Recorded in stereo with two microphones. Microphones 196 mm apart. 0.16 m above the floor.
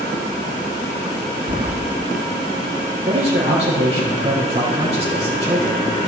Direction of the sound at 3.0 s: 30° right (ahead or behind).